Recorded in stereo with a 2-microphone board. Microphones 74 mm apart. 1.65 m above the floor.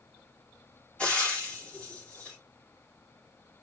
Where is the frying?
20° left (ahead or behind), 4 m.